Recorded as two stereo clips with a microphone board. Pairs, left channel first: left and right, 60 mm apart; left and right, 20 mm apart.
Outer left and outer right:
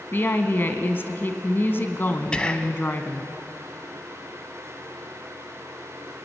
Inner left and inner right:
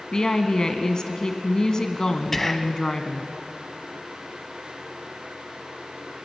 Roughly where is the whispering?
Centre.